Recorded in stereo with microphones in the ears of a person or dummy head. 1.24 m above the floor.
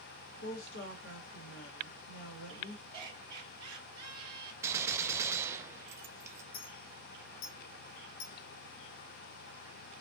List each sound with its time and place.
0.4 s a woman speaking: 85° left, 1.4 m
2.9 s laughter: 30° right (ahead or behind), 2.5 m
4.6 s a gunshot: 20° right (ahead or behind), 0.5 m
6.5 s a clink: 55° left (ahead or behind), 1.2 m